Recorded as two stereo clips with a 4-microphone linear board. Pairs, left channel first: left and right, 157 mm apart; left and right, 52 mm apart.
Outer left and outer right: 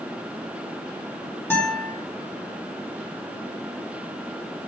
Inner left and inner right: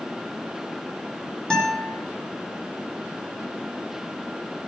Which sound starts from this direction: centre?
A guitar, at 1.5 s.